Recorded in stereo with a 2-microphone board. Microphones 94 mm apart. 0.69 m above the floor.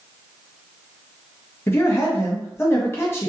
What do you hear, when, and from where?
1.7 s a man speaking: 25° left (ahead or behind), 0.5 m